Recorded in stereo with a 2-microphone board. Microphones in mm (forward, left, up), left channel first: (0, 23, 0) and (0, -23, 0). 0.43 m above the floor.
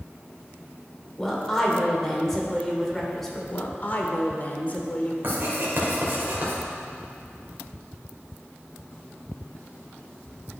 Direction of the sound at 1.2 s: 5° left (ahead or behind).